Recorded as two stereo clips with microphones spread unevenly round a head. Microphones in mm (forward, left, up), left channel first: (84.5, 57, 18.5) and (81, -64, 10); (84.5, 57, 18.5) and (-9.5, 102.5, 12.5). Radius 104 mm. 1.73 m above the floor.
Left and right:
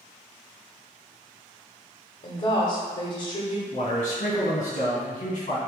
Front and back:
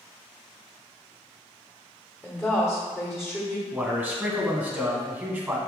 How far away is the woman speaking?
About 1.1 m.